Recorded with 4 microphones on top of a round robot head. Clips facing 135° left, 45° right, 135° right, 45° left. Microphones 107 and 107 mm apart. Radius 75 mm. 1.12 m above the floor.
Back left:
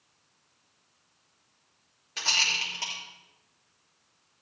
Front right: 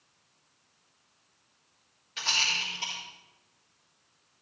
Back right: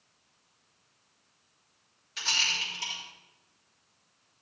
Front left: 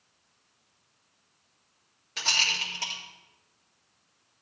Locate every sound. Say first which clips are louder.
2.2 s a rattle: back left 1 dB, front left 3 dB; 85° left, 2.5 m